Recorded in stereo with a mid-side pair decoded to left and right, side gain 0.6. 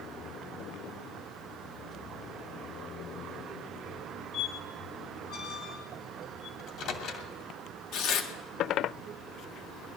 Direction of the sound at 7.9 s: 65° left.